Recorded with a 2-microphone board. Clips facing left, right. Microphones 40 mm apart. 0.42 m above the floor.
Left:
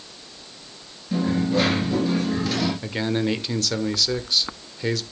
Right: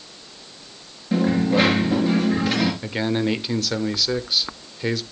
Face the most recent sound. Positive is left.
turn(degrees=-10)  # may be behind; listen again after turning